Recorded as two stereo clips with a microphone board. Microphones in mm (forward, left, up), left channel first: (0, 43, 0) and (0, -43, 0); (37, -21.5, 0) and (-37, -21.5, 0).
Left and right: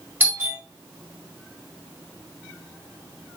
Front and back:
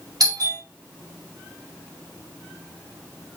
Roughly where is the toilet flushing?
I don't hear a toilet flushing.